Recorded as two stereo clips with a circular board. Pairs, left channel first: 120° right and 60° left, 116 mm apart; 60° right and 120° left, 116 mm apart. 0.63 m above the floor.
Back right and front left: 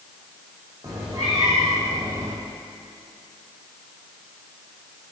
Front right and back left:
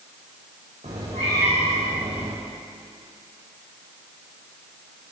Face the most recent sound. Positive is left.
turn(degrees=120)